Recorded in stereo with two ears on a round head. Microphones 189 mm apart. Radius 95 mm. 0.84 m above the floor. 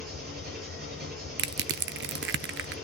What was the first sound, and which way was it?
An engine running, 50° right (ahead or behind).